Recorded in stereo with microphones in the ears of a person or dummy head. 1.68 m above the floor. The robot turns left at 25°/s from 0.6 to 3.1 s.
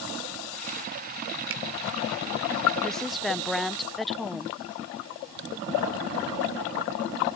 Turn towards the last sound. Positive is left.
turn(degrees=0)  # may be behind; listen again after turning